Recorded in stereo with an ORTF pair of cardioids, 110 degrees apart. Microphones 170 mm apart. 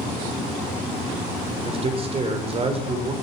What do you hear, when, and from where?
1.6 s a man speaking: 35° right, 4 m